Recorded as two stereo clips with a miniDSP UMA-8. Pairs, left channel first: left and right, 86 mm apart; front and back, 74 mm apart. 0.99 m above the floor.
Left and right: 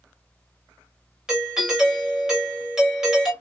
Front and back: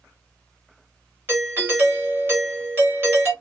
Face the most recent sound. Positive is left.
turn(degrees=-170)